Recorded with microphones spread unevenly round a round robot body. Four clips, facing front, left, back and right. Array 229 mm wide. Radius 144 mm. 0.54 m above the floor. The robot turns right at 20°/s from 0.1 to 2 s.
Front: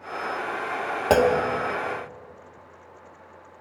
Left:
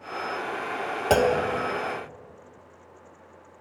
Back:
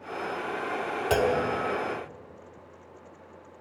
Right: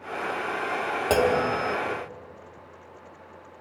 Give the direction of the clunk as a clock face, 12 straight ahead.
12 o'clock.